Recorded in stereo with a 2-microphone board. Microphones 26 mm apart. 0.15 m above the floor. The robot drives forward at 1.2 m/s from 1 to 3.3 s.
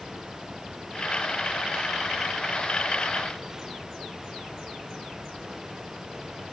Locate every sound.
Only background noise.